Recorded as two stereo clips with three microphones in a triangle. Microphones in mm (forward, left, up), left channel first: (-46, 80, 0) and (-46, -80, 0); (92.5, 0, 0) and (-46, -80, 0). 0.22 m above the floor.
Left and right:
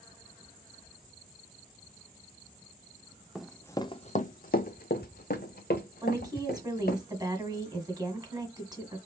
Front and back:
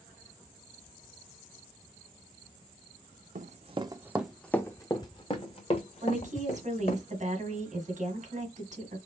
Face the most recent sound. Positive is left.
turn(degrees=-145)